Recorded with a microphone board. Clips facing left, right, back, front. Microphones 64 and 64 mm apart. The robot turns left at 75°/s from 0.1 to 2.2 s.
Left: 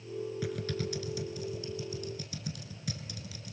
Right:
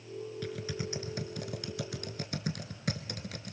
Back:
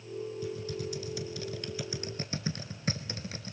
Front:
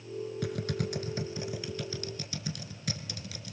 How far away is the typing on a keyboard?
About 1.1 m.